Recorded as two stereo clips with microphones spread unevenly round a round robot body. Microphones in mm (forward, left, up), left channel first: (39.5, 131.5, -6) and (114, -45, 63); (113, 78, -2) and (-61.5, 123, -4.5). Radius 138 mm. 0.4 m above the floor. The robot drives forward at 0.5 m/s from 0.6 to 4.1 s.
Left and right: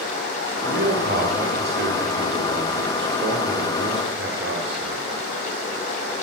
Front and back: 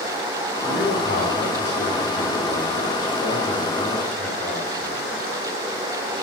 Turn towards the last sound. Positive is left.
turn(degrees=-85)